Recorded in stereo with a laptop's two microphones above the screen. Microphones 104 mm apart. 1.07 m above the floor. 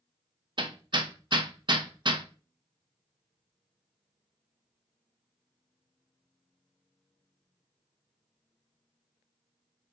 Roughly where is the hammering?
Right.